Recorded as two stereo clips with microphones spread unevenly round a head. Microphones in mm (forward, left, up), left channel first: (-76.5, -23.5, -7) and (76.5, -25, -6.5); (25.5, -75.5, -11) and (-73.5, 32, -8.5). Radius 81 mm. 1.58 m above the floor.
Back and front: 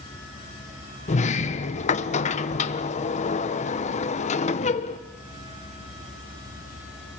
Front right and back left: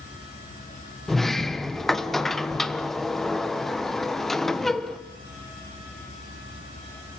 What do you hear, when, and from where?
1.1 s a sliding door: 135° right, 1.2 m